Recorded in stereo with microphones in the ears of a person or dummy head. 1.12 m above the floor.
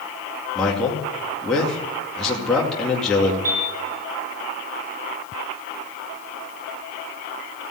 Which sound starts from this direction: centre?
A man speaking, at 0.6 s.